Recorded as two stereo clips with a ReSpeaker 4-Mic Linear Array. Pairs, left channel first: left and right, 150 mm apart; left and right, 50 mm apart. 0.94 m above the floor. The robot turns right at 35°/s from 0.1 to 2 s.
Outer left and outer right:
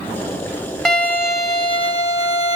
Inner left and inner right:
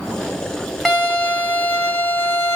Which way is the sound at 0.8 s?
5° left.